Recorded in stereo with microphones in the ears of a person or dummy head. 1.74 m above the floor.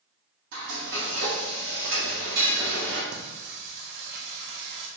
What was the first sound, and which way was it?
Frying, 60° right (ahead or behind).